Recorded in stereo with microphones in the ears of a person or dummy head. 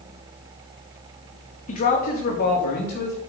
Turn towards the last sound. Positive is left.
turn(degrees=55)  # may be behind; listen again after turning